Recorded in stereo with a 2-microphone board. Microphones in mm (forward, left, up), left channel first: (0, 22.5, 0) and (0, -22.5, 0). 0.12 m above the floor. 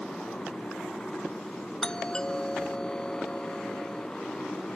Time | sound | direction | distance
0.0 | a motorcycle | 20° left (ahead or behind) | ?
1.8 | a doorbell | 20° left (ahead or behind) | ?